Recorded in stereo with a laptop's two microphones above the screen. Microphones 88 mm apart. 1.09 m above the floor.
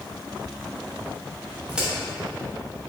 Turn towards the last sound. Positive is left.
turn(degrees=-15)  # may be behind; listen again after turning